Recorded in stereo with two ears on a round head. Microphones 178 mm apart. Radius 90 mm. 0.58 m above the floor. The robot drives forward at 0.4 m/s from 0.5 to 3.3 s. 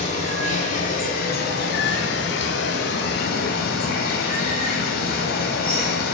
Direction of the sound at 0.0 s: 40° left (ahead or behind).